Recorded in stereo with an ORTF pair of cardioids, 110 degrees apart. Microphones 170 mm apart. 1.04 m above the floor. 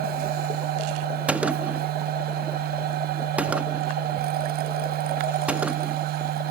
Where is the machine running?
70° right.